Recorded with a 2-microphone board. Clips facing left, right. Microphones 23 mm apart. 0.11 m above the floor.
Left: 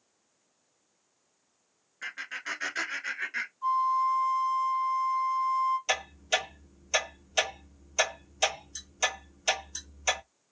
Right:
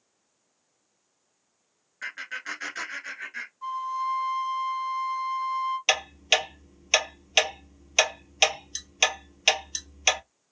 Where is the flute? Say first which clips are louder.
Left 4 dB; 40° right (ahead or behind), 2 m.